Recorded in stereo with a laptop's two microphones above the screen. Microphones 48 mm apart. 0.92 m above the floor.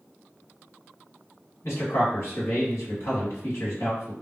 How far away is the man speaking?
About 1.9 m.